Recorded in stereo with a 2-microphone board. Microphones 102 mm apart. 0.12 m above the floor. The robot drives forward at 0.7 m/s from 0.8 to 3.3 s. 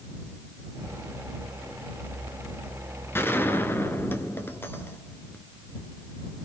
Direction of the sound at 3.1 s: 20° left (ahead or behind).